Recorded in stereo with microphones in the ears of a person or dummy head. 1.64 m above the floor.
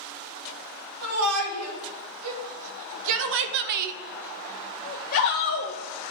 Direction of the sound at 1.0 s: 85° right.